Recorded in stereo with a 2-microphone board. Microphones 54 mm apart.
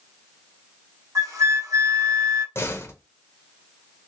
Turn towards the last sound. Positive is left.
turn(degrees=45)  # may be behind; listen again after turning